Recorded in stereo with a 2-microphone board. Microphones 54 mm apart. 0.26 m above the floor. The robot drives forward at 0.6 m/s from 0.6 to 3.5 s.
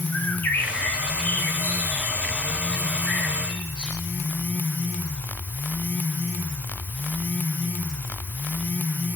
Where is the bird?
40° left (ahead or behind), 1.3 m; by 4.0 s 15° left (ahead or behind), 3 m.